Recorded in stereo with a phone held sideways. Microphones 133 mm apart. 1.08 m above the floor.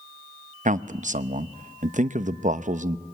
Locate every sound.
0.7 s a man speaking: 70° right (ahead or behind), 0.8 m